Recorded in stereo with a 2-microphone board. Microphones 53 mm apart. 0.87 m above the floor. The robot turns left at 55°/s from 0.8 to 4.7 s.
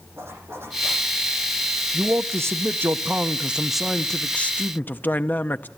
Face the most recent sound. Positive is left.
turn(degrees=135)